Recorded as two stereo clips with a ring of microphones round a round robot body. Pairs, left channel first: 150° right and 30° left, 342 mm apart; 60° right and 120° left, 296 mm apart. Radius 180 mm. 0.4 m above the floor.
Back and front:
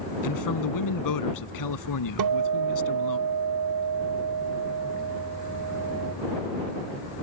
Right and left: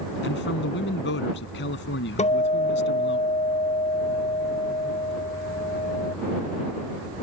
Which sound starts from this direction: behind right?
A man speaking, at 0.2 s.